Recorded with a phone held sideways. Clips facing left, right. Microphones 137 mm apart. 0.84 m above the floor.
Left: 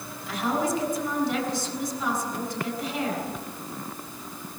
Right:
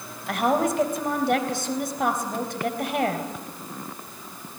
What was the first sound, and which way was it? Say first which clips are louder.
A woman speaking: right 4 dB; 65° right (ahead or behind).